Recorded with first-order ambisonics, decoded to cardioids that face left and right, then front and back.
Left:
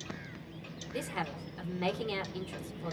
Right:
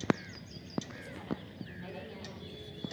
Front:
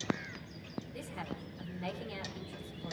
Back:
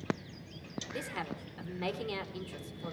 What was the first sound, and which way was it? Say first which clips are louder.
A woman speaking: left 6 dB, back 5 dB; 125° left.